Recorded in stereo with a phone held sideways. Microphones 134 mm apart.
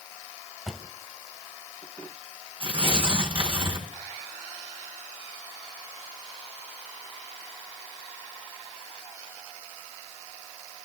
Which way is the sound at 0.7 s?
Centre (ahead or behind).